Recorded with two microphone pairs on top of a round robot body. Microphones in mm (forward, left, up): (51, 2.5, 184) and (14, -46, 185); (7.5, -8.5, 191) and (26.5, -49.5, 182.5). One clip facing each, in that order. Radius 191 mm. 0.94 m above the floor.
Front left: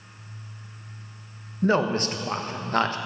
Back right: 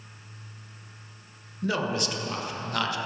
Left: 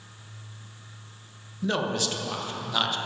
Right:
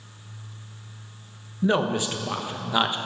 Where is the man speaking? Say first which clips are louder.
Front left 6 dB, right 4 dB; straight ahead, 1.4 m.